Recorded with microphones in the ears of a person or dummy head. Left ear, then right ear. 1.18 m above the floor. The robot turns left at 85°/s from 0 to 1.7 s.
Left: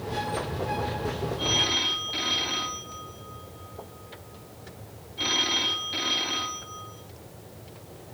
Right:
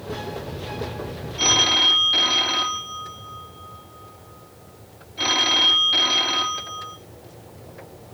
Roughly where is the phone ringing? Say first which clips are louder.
Right 8 dB; right.